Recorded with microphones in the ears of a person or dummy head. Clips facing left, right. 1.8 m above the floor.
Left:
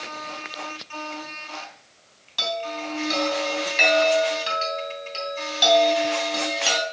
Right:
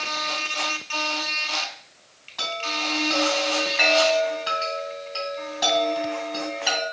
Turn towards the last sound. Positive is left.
turn(degrees=45)  # may be behind; listen again after turning